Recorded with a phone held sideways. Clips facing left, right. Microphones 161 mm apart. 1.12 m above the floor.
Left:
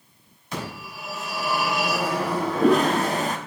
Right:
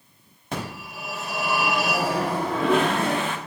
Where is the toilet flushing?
40° left (ahead or behind), 0.7 m.